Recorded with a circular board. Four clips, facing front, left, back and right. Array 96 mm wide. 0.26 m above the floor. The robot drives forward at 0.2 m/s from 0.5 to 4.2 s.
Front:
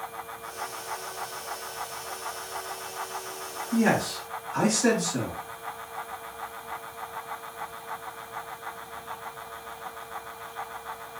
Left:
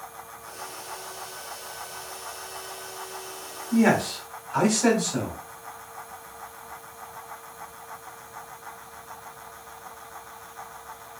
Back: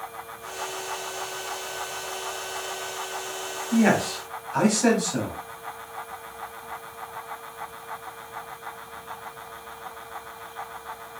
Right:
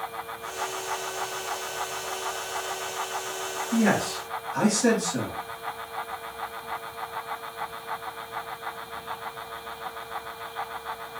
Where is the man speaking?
125° left, 1.2 m; by 5.4 s 130° left, 1.3 m.